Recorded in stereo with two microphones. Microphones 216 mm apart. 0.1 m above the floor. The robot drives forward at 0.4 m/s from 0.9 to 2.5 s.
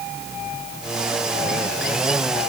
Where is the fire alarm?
No fire alarm in this recording.